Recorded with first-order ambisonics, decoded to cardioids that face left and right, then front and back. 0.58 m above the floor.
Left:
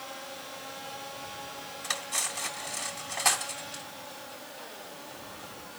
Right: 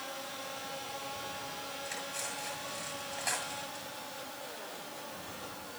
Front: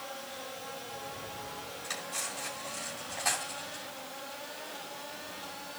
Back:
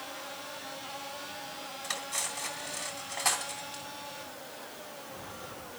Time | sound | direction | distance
1.8 | cutlery clinking | 115° left | 3 m